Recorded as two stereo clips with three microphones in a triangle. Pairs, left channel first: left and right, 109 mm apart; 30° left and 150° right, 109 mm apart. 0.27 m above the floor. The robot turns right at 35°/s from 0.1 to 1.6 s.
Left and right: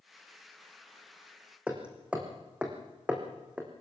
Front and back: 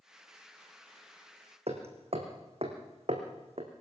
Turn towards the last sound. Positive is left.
turn(degrees=-170)